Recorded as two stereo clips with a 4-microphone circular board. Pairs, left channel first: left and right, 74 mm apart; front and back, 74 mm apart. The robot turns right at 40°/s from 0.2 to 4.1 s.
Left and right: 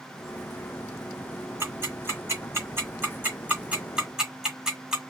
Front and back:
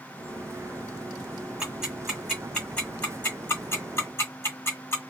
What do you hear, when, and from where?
1.6 s ticking: 115° right, 1.8 m; by 5.0 s 15° right, 1.8 m